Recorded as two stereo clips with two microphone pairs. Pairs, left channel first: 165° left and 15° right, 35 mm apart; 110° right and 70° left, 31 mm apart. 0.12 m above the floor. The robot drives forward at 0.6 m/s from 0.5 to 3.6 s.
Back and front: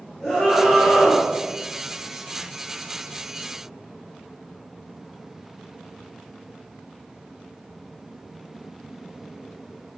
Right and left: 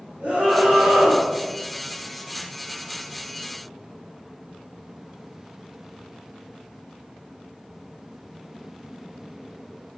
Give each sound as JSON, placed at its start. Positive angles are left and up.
{"t": 0.2, "sound": "a scream", "azimuth_deg": 65, "distance_m": 1.9}